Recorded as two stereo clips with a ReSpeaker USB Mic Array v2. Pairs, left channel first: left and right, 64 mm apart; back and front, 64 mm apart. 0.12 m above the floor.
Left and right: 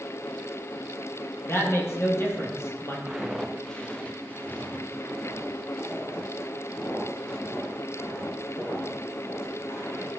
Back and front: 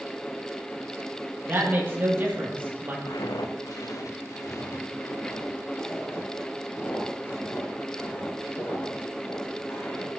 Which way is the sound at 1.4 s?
55° left.